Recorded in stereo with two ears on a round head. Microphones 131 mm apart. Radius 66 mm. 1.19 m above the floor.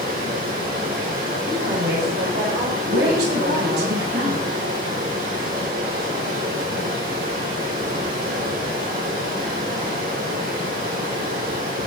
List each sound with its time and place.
0.0 s running water: 70° right (ahead or behind), 8 m
1.5 s a woman speaking: 85° right, 5 m
2.9 s a woman speaking: 80° right, 8.5 m